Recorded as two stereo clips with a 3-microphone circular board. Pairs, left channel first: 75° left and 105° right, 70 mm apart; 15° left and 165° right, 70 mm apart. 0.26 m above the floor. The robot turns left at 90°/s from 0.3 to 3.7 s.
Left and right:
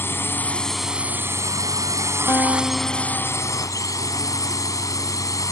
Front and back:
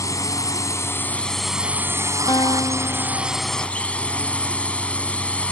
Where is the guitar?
30° left; by 3.7 s 95° right.